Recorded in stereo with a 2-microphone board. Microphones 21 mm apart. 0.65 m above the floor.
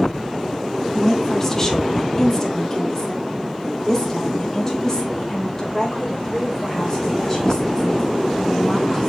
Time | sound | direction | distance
0.9 | a woman speaking | 25° left (ahead or behind) | 1.1 m